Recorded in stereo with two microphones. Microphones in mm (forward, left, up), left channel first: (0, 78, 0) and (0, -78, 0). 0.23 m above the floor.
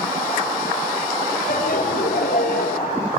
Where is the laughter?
70° left (ahead or behind), 3 m; by 3.1 s 75° left (ahead or behind), 4.5 m.